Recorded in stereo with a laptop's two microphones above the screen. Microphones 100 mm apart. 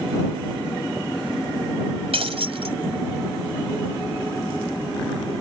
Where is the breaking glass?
75° right (ahead or behind).